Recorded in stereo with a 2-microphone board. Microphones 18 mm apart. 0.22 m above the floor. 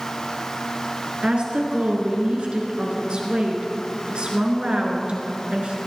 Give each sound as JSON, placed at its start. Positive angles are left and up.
{"t": 1.2, "sound": "a woman speaking", "side_deg": -60, "distance_m": 3.0}